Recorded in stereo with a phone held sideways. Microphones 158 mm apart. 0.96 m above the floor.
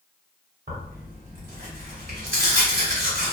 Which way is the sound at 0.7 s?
60° right (ahead or behind).